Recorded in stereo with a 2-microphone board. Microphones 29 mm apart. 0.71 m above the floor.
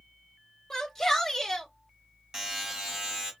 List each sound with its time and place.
0.7 s a shout: 10° left (ahead or behind), 2 m
2.3 s a buzzer: 20° right (ahead or behind), 3 m